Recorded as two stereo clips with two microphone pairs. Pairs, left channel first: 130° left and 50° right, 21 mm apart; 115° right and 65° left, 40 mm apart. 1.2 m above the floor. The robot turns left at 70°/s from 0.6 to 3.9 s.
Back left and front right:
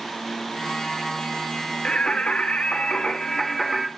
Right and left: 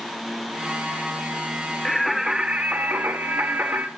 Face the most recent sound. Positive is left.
turn(degrees=25)